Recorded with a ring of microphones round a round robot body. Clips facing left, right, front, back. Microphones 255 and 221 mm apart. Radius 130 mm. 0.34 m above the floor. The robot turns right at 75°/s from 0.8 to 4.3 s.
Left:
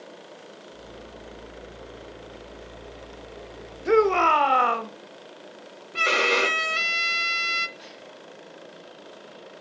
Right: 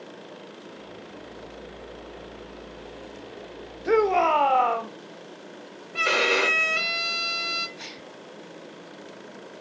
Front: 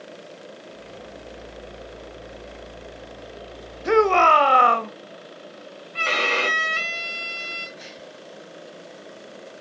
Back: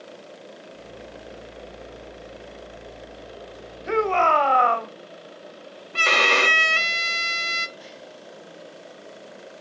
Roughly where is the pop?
I don't hear a pop.